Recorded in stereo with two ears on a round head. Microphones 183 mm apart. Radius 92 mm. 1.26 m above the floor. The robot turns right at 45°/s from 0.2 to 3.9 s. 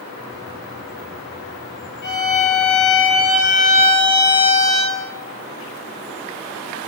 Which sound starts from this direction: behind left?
A violin, at 2.0 s.